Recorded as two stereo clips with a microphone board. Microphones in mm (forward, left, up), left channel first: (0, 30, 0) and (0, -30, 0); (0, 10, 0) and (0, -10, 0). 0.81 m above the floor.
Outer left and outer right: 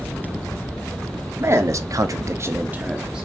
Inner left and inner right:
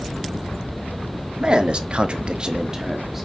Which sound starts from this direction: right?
A man speaking, at 1.4 s.